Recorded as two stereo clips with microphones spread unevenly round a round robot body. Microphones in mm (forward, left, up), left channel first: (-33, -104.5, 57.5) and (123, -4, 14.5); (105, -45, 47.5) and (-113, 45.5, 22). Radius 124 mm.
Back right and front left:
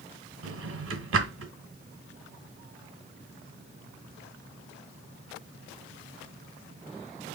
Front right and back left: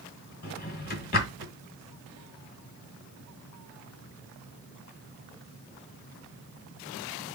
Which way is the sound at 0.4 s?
30° left.